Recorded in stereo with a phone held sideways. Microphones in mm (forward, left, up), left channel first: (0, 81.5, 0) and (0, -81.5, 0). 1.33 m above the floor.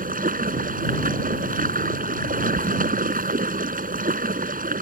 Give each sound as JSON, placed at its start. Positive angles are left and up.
{"t": 0.0, "sound": "running water", "side_deg": -60}